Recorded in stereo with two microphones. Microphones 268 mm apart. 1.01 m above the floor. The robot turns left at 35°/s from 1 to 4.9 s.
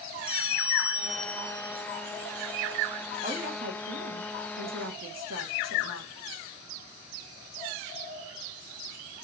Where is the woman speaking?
25° right, 2 m; by 6.1 s 85° right, 2 m.